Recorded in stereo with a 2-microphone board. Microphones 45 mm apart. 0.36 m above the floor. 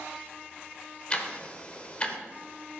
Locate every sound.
1.1 s ticking: 25° left (ahead or behind), 1.0 m